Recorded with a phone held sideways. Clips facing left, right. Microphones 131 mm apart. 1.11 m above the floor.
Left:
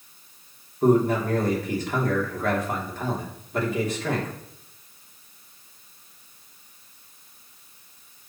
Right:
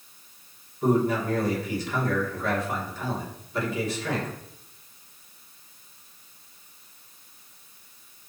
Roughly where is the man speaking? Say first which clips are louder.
Left 3 dB; left.